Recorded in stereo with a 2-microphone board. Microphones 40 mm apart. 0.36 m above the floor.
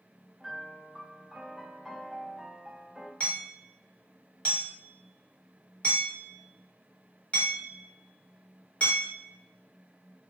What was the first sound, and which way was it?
A piano, 5° right (ahead or behind).